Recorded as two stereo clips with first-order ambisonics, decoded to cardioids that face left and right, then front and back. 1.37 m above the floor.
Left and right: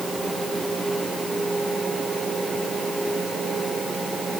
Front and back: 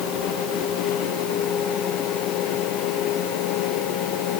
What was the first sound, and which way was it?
Only background noise.